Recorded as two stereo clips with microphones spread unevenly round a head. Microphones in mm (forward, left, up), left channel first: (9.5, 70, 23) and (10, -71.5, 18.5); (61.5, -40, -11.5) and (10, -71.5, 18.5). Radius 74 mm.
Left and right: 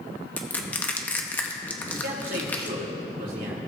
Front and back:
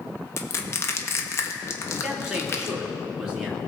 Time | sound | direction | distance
0.4 | crushing | 10° left | 1.0 m
1.9 | a man speaking | 65° right | 3 m